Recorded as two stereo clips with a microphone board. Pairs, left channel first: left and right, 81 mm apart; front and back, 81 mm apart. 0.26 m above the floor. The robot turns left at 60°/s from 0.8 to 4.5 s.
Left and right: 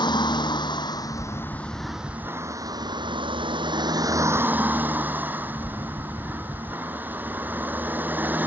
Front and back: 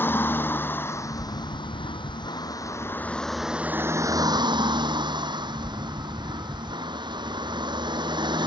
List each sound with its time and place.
0.0 s a vehicle: 65° left; by 8.5 s 160° right